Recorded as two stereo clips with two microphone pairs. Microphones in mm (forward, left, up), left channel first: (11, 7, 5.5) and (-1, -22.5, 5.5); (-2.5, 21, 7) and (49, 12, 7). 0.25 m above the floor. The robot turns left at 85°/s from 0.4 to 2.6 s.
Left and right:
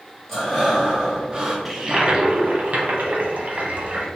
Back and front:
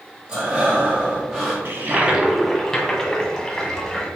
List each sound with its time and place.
0.3 s breathing: straight ahead, 1.7 m; by 1.6 s 100° right, 1.7 m
1.6 s a toilet flushing: 30° right, 0.9 m; by 4.1 s 115° right, 0.9 m